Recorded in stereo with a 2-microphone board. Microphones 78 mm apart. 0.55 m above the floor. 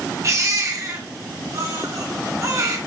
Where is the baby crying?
45° right (ahead or behind), 2.5 m.